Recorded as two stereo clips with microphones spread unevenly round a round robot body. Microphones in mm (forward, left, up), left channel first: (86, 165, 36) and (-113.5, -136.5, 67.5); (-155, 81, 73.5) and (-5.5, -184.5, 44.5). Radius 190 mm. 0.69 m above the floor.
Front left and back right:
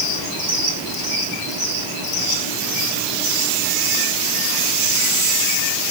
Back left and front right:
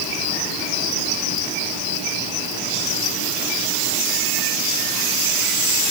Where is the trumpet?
I don't hear a trumpet.